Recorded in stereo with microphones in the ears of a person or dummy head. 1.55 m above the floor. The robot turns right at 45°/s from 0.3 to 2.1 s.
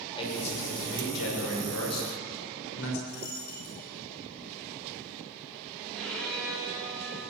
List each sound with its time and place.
0.1 s a man speaking: 30° left, 7 m; by 3.0 s 110° left, 7 m
3.1 s a dropped coin: 70° left (ahead or behind), 6 m
5.9 s a violin: centre (ahead or behind), 10 m